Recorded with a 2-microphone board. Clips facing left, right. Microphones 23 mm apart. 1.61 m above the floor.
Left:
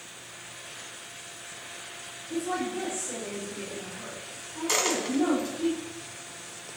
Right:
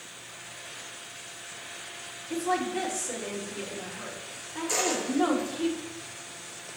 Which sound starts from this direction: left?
A dropped coin, at 4.7 s.